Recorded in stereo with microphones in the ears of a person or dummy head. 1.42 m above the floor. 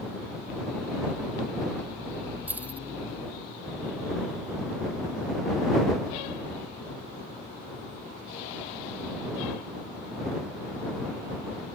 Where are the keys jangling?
15° right (ahead or behind).